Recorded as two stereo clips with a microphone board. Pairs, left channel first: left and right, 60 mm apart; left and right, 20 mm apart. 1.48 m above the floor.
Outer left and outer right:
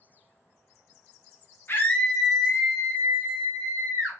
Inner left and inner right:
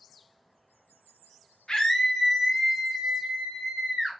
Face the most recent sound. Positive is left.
turn(degrees=-55)  # may be behind; listen again after turning